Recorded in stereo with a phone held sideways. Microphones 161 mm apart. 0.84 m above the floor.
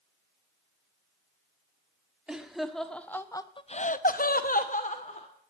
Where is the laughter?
5° right (ahead or behind), 1.5 m; by 5.3 s 45° left (ahead or behind), 1.4 m.